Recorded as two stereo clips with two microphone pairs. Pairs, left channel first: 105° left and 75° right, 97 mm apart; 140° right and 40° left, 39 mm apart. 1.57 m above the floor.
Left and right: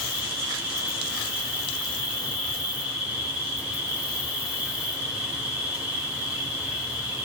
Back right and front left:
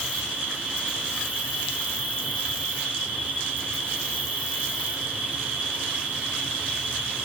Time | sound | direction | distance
0.0 | an insect | 5° right | 1.0 m